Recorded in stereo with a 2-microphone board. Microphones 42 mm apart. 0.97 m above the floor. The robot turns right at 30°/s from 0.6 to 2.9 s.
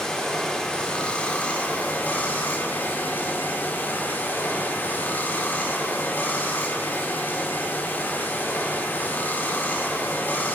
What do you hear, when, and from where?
0.0 s running water: 20° left, 0.7 m; by 10.6 s 90° left, 0.7 m